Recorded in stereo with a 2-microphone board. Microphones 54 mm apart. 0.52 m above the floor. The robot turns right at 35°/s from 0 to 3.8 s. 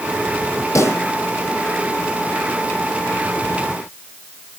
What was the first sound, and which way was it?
A pop, 70° left (ahead or behind).